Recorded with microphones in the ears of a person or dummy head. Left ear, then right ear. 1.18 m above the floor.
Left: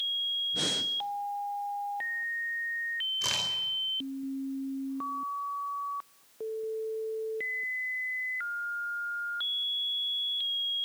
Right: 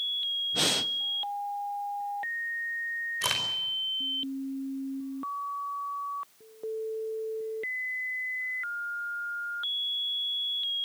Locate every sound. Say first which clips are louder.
0.5 s breathing: right 3 dB; 30° right (ahead or behind), 0.5 m
3.2 s a crack: right 3 dB; 25° right (ahead or behind), 5 m